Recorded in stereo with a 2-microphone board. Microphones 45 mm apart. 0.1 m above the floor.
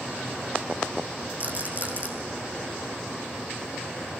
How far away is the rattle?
About 4.5 m.